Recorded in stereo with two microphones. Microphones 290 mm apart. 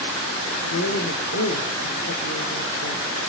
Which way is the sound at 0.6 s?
65° left (ahead or behind).